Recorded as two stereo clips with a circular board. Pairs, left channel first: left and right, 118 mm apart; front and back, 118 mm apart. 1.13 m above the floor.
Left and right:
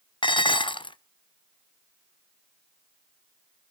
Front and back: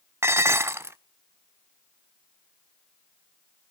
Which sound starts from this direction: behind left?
Dishes clattering, at 0.2 s.